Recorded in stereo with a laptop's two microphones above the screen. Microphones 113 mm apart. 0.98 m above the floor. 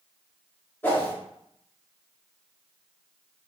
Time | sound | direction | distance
0.8 | a whoosh | 20° left (ahead or behind) | 0.8 m